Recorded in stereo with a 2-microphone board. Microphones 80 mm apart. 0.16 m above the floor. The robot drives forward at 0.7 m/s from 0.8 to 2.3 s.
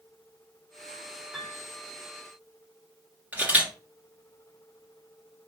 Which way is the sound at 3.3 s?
20° right (ahead or behind).